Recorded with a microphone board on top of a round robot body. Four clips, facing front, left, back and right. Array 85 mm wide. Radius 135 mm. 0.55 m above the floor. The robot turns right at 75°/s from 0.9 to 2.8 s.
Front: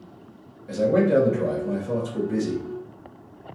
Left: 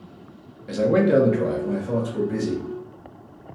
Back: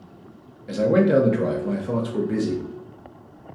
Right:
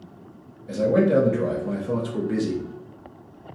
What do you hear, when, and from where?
0.7 s a man speaking: 125° left, 0.9 m; by 2.6 s 105° right, 0.9 m